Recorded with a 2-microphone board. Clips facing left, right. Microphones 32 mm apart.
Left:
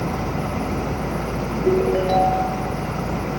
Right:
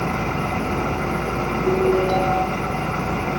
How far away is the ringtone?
About 7.5 m.